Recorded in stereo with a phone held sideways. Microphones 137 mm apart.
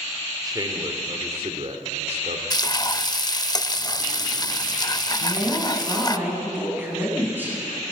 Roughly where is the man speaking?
Right.